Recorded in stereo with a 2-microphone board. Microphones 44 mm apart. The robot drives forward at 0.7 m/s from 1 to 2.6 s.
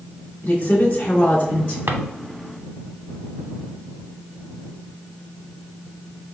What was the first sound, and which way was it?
A woman speaking, 55° left (ahead or behind).